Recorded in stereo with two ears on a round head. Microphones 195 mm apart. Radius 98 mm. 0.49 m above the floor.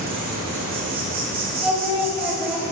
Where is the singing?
5° right (ahead or behind), 1.1 m.